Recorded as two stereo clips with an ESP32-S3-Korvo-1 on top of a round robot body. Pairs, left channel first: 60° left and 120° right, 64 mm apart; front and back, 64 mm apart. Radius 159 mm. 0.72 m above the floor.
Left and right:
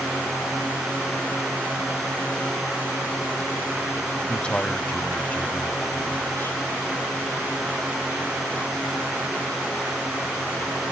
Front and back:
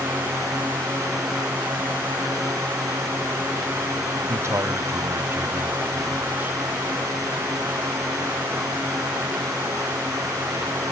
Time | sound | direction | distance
4.3 | a man speaking | 135° left | ?